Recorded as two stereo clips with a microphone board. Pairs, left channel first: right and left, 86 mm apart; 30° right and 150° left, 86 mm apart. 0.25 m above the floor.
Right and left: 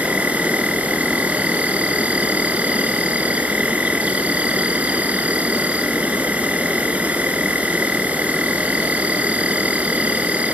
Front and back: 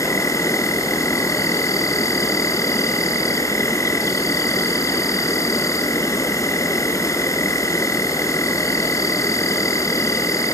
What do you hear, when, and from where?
0.0 s an insect: 20° left, 1.4 m